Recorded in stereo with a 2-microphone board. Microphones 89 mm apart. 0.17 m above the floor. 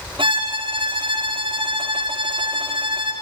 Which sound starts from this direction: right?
A violin, at 0.2 s.